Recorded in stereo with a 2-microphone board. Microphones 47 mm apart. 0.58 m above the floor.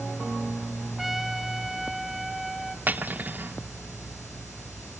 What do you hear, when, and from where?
1.0 s a trumpet: 5° right (ahead or behind), 0.7 m
2.9 s cutlery clinking: 40° right (ahead or behind), 0.5 m